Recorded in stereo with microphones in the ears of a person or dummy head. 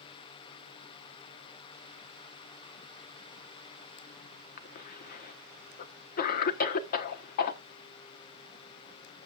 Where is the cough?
50° left (ahead or behind), 1.2 m.